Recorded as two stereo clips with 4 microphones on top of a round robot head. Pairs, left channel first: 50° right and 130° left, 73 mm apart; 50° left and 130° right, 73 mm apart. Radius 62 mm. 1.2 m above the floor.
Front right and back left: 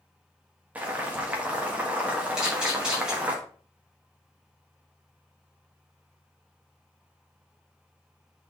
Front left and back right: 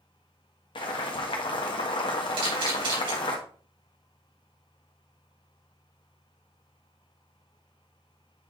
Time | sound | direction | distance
0.8 | boiling | 60° left | 1.5 m
2.4 | a camera shutter | 150° right | 3.5 m